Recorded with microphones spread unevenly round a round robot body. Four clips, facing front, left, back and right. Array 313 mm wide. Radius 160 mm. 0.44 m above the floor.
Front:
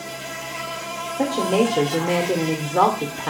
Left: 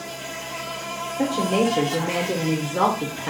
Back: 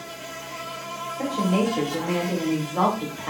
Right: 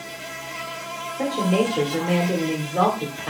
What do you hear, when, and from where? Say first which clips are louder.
0.0 s an insect: left 2 dB, front 4 dB; 5° right, 2 m
1.2 s a woman speaking: even, front 4 dB; 20° left, 1.2 m